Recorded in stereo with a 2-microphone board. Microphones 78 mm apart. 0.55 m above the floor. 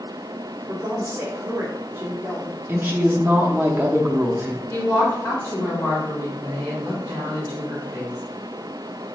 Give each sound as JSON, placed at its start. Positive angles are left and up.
{"t": 0.7, "sound": "a woman speaking", "side_deg": -25, "distance_m": 1.2}
{"t": 2.7, "sound": "a woman speaking", "side_deg": -25, "distance_m": 0.7}
{"t": 4.7, "sound": "a woman speaking", "side_deg": 30, "distance_m": 1.5}